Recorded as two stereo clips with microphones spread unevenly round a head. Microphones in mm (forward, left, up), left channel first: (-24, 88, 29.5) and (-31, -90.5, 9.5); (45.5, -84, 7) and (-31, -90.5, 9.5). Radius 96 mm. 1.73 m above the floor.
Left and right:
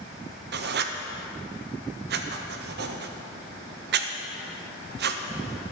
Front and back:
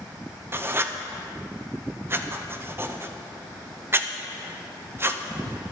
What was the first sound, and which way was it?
Writing, 120° right.